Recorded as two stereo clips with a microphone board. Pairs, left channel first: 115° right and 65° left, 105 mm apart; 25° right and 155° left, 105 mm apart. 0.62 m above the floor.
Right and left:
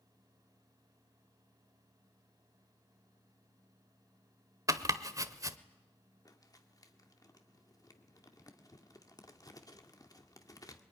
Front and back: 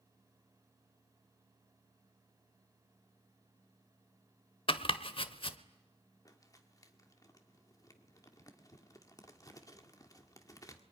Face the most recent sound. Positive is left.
turn(degrees=-70)